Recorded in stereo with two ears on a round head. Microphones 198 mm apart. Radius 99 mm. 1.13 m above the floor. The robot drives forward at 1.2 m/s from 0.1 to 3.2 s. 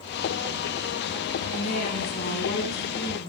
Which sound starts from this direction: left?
A woman speaking, at 1.5 s.